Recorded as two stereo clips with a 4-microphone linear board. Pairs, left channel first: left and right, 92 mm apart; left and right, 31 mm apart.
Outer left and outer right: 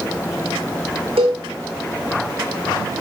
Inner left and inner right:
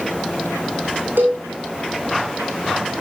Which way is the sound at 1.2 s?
80° right.